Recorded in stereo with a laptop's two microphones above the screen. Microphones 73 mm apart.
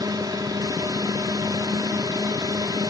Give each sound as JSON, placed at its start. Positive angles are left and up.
{"t": 0.0, "sound": "a drone", "side_deg": -65}